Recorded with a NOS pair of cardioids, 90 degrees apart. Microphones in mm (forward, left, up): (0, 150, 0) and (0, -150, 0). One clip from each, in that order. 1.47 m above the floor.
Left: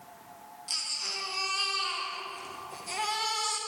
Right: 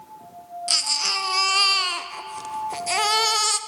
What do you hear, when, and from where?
0.7 s a baby crying: 70° right, 0.8 m